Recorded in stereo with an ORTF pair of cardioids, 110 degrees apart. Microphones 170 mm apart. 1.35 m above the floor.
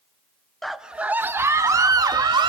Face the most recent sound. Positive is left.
turn(degrees=-25)